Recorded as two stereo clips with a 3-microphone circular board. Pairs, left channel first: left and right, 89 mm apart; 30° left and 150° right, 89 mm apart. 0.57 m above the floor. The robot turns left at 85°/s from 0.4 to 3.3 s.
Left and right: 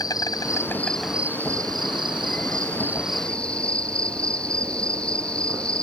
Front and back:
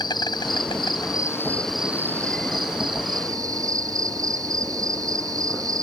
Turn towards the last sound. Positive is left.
turn(degrees=165)